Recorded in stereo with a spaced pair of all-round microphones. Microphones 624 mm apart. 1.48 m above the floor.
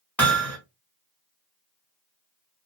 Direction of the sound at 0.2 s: Centre (ahead or behind).